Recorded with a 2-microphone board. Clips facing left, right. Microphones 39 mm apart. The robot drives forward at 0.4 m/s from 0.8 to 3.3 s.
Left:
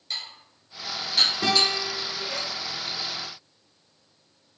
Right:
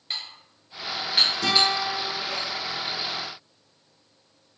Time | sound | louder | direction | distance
0.1 | dishes clattering | right 1 dB | 30° right (ahead or behind) | 1.3 m
1.4 | a guitar | right 1 dB | 25° left (ahead or behind) | 1.8 m